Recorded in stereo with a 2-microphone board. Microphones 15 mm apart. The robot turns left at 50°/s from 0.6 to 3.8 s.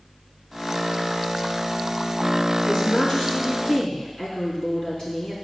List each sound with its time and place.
2.6 s a woman speaking: 120° left, 3.5 m; by 5.3 s 65° left, 3.5 m